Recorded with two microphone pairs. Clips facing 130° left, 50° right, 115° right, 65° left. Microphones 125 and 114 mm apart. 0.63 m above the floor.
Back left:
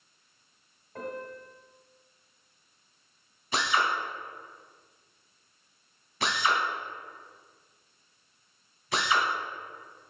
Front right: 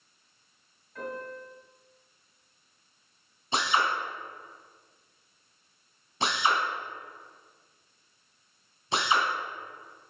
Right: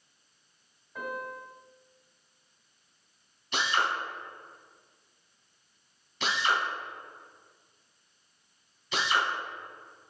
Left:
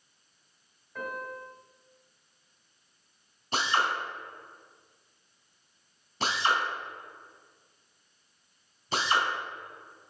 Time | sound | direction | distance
0.9 | a piano | 165° left | 2 m
3.5 | a drill | 15° left | 1.9 m